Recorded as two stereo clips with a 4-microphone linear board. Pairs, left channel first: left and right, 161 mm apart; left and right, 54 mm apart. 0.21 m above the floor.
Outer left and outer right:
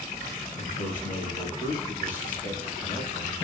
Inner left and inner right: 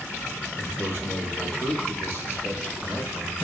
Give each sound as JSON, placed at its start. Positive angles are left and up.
{"t": 0.6, "sound": "a man speaking", "side_deg": 60, "distance_m": 4.5}